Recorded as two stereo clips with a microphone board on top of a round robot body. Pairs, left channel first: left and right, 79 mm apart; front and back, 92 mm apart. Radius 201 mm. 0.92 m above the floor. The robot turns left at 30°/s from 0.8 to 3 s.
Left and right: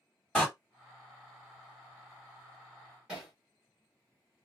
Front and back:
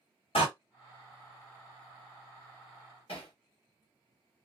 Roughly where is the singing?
I don't hear singing.